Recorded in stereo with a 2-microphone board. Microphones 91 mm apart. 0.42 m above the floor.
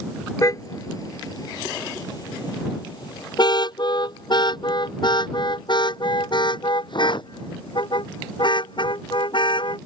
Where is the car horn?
40° left (ahead or behind); by 9.8 s 60° left (ahead or behind).